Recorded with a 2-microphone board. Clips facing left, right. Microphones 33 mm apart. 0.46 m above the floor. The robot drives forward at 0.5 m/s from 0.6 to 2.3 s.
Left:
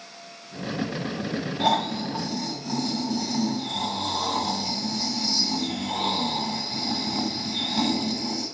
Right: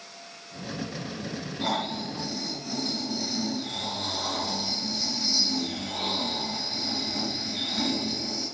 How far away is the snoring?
About 1.5 m.